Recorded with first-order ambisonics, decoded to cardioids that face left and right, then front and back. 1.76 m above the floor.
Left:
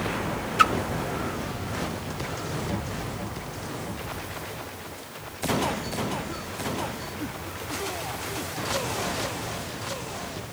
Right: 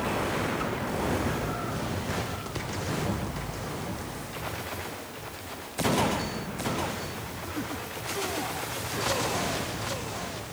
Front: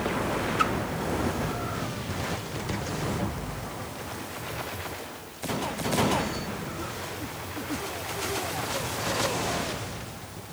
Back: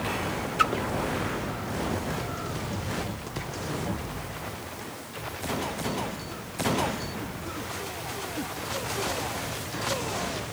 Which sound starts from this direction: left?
A splash, at 0.6 s.